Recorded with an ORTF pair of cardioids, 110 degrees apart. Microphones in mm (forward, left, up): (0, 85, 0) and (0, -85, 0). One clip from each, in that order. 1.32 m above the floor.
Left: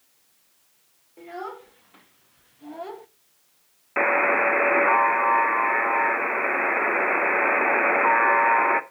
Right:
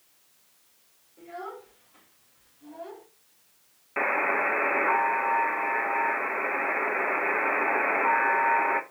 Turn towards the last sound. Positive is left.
turn(degrees=30)